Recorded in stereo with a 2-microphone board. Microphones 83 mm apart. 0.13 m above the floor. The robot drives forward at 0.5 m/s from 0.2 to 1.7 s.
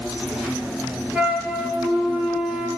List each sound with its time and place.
0.0 s an insect: 15° right (ahead or behind), 4 m
1.1 s a flute: 15° right (ahead or behind), 1.9 m